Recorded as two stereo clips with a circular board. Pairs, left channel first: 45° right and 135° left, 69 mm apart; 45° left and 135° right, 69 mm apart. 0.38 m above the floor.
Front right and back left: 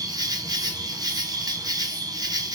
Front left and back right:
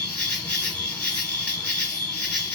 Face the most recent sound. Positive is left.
turn(degrees=120)